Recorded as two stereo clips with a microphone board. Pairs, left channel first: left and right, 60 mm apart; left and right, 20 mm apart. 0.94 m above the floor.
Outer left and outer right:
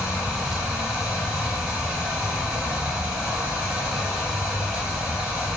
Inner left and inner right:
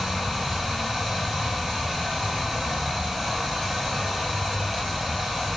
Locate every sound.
0.0 s running water: 20° right (ahead or behind), 1.1 m